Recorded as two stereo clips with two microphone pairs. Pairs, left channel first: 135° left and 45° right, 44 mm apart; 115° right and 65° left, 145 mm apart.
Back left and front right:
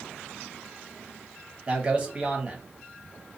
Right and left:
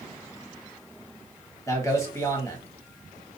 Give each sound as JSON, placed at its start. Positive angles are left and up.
{"t": 1.7, "sound": "a man speaking", "azimuth_deg": -70, "distance_m": 1.0}